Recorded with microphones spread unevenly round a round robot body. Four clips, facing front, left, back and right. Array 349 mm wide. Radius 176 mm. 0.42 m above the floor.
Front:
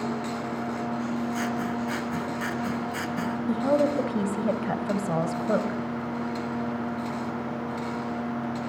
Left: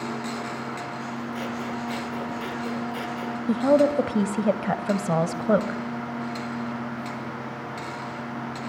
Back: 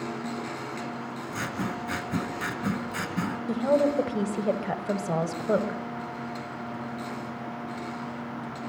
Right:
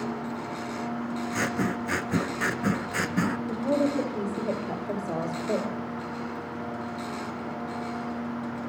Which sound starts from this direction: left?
A woman speaking, at 3.5 s.